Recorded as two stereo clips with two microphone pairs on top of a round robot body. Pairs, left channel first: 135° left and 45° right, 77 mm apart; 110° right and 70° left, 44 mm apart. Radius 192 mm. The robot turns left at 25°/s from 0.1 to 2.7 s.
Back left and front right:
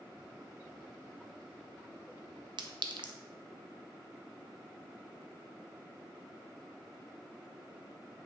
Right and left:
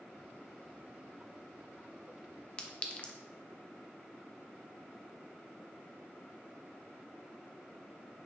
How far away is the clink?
About 0.5 m.